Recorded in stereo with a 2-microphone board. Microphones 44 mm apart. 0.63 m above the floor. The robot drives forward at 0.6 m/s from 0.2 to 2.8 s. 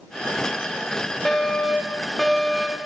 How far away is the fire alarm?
About 3.5 m.